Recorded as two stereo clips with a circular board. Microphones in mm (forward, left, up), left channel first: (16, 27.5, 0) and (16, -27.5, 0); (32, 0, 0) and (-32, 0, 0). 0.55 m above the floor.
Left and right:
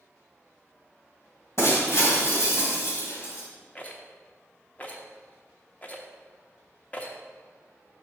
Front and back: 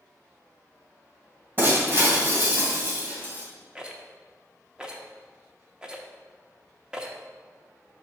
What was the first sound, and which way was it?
Breaking glass, 125° left.